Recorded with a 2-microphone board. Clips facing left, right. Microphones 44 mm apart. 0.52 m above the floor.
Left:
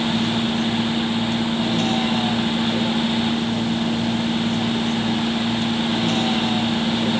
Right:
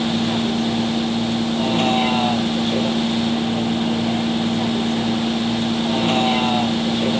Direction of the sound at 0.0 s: 40° right (ahead or behind).